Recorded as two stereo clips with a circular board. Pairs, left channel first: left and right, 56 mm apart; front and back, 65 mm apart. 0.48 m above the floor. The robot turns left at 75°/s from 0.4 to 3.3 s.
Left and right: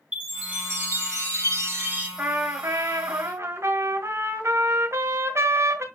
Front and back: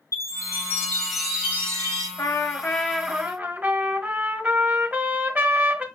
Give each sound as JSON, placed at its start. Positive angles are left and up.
{"t": 0.1, "sound": "a chime", "azimuth_deg": -30, "distance_m": 4.0}
{"t": 2.2, "sound": "a trumpet", "azimuth_deg": -35, "distance_m": 1.7}